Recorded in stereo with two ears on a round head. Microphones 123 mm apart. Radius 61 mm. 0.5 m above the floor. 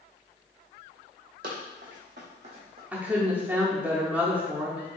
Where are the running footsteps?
75° right (ahead or behind), 1.7 m; by 2.8 s 45° right (ahead or behind), 1.7 m.